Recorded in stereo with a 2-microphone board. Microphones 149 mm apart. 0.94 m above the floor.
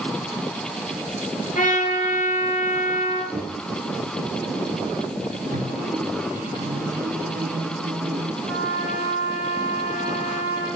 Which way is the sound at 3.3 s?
5° right (ahead or behind).